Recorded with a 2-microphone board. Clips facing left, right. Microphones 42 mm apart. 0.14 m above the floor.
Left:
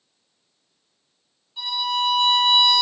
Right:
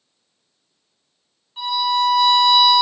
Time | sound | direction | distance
1.6 | a violin | 35° right (ahead or behind) | 1.7 m